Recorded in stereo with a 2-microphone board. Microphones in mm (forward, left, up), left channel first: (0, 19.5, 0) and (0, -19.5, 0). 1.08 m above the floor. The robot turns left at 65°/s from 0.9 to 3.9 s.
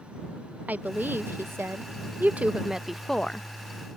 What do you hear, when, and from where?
0.7 s a woman speaking: 45° right (ahead or behind); by 3.5 s 30° left (ahead or behind)